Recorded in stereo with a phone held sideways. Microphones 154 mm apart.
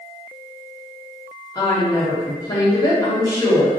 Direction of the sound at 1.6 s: 25° left (ahead or behind).